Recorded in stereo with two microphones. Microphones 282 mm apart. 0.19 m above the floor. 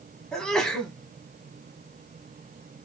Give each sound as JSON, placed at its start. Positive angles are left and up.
{"t": 0.3, "sound": "a sneeze", "side_deg": 5, "distance_m": 1.1}